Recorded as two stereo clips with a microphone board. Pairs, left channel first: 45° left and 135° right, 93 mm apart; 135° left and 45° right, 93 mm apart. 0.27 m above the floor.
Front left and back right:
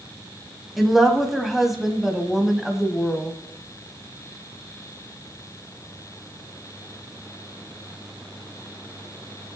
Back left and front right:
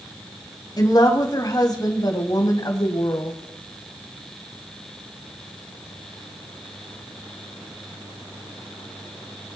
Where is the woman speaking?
140° left, 1.8 m.